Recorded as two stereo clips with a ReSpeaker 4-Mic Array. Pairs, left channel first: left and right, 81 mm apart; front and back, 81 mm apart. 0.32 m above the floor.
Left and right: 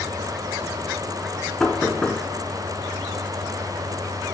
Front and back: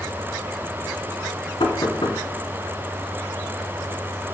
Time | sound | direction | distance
1.6 | knocking | 10° left | 2 m